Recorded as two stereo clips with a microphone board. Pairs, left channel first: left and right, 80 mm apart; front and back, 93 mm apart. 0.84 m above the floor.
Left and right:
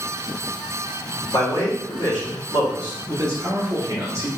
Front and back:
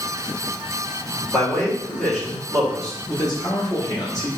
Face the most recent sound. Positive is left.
turn(degrees=-45)